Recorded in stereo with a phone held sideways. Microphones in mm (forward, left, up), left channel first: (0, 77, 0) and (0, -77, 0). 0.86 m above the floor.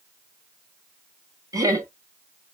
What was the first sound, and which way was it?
Laughter, 25° right (ahead or behind).